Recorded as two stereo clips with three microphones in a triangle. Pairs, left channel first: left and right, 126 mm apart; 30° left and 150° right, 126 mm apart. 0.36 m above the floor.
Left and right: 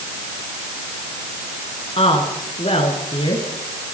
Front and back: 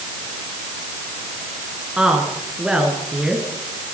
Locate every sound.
2.0 s a woman speaking: 125° left, 5.5 m